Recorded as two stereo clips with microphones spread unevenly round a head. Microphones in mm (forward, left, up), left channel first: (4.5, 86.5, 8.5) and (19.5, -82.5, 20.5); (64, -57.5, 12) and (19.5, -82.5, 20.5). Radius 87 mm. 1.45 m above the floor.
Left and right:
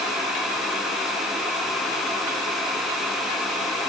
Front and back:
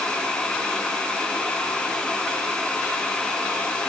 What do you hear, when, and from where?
Only background noise.